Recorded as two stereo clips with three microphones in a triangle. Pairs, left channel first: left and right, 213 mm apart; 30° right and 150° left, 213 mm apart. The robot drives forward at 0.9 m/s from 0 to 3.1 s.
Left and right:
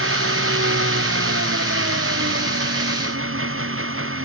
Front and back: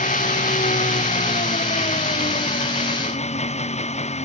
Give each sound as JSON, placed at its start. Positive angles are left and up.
{"t": 0.0, "sound": "an engine running", "azimuth_deg": -85}